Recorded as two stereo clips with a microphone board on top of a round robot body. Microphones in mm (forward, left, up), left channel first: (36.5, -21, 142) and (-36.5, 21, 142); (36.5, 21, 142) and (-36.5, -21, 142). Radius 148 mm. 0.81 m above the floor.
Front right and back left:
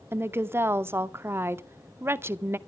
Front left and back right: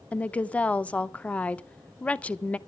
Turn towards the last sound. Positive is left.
turn(degrees=100)